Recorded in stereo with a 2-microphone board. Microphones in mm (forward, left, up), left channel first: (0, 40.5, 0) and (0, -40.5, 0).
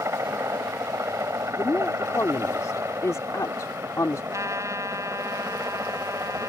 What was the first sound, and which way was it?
A helicopter, 35° right (ahead or behind).